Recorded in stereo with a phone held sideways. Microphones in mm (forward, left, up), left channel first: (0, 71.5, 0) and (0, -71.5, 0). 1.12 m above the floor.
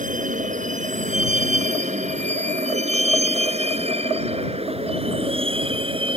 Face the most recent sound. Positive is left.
turn(degrees=-40)  # may be behind; listen again after turning